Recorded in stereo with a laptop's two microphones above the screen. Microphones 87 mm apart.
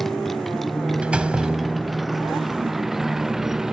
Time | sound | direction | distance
0.0 | a motorcycle | centre (ahead or behind) | ?
1.0 | a door slam | 10° right (ahead or behind) | ?